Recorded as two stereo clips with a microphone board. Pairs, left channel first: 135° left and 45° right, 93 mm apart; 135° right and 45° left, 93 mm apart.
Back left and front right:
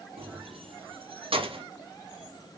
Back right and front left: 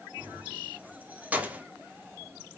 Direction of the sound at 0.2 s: 30° right.